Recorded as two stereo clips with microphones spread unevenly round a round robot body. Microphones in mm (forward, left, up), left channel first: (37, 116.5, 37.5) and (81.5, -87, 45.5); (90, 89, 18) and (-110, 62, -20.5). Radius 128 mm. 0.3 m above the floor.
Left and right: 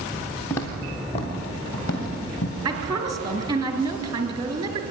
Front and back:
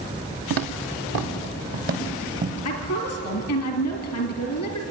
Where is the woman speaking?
20° right, 2 m.